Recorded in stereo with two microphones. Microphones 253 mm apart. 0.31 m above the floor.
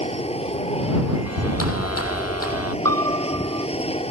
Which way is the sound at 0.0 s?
25° left (ahead or behind).